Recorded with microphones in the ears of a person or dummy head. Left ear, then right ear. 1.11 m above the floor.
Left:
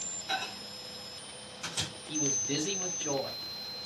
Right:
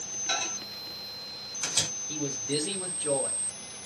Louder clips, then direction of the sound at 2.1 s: Even; 15° left (ahead or behind).